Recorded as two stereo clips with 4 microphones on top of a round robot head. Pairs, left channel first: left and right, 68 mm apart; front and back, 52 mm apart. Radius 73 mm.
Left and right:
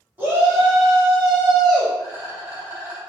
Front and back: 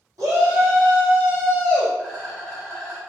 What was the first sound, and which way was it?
A shout, 155° right.